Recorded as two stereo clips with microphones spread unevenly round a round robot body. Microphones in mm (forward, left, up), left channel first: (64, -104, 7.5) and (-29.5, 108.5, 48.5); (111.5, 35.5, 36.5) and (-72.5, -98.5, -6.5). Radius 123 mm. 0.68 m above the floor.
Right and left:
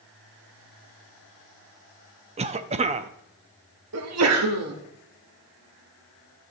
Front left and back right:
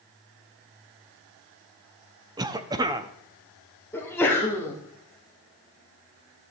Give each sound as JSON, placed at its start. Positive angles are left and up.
{"t": 2.4, "sound": "a cough", "azimuth_deg": 175, "distance_m": 0.5}
{"t": 3.9, "sound": "a sneeze", "azimuth_deg": 125, "distance_m": 1.5}